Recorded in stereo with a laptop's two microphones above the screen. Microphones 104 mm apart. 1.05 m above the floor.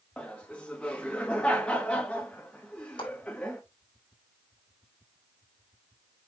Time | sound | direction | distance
0.2 | laughter | 10° left (ahead or behind) | 1.4 m
3.0 | a clap | 45° left (ahead or behind) | 4.5 m